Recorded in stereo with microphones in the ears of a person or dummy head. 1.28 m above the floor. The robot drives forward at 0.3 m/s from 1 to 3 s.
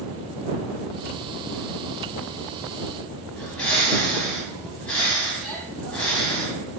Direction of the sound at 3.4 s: 10° left (ahead or behind).